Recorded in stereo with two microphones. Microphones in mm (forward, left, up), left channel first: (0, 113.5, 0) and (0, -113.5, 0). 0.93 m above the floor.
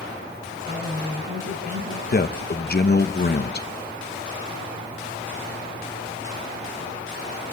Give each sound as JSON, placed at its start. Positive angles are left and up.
{"t": 0.6, "sound": "a woman speaking", "side_deg": -35, "distance_m": 4.5}
{"t": 2.1, "sound": "a man speaking", "side_deg": 45, "distance_m": 1.1}